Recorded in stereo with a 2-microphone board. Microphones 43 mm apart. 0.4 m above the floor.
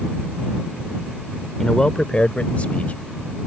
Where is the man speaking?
10° left (ahead or behind); by 3.5 s 40° left (ahead or behind).